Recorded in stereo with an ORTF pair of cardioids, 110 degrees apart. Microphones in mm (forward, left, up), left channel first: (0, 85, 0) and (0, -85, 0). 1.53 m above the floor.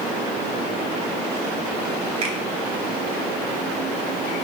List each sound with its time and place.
2.2 s a finger snap: 40° right, 4 m